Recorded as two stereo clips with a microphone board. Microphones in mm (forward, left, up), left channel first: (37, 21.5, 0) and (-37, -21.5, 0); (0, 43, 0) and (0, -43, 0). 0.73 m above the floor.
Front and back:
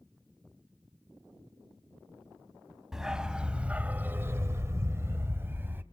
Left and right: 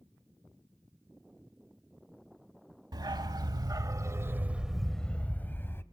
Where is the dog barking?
65° right, 1.0 m; by 5.8 s 145° left, 0.9 m.